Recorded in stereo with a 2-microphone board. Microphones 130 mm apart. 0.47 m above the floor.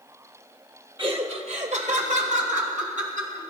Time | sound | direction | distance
1.0 | laughter | 40° right (ahead or behind) | 1.7 m